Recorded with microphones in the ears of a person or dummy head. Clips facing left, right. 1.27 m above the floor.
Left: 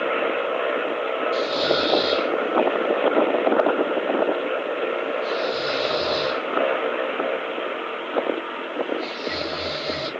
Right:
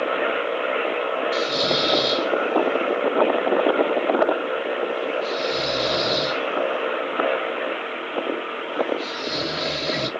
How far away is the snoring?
About 1.6 m.